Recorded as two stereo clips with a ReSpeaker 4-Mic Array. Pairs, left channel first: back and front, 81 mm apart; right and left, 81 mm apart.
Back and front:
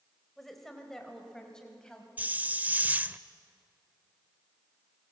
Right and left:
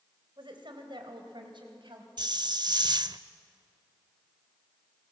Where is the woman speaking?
95° left, 3 m; by 2.1 s 100° left, 4 m.